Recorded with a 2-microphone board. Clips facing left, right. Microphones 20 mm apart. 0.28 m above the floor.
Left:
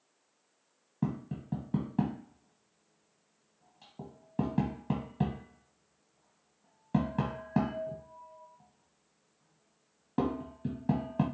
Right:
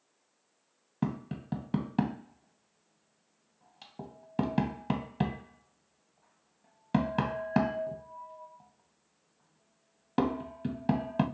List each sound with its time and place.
1.0 s tapping: 55° right (ahead or behind), 0.6 m